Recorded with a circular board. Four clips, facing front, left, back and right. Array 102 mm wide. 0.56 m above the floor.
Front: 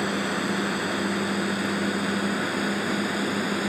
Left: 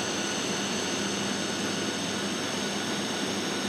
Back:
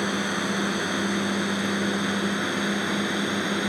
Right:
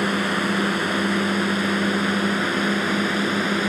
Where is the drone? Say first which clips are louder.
Right 9 dB, even; 95° right; by 3.7 s 100° right.